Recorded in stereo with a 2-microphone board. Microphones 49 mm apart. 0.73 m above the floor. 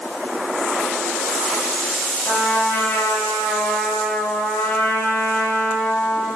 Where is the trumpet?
60° left (ahead or behind), 5.5 m.